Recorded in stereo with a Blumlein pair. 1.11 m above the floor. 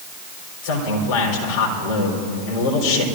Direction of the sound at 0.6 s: 50° left.